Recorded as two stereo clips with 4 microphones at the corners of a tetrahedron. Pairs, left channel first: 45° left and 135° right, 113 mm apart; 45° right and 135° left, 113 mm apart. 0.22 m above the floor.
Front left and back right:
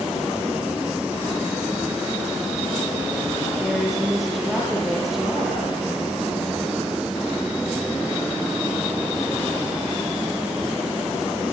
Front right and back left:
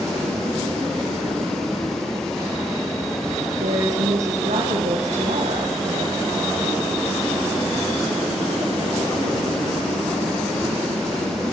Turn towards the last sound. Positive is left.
turn(degrees=135)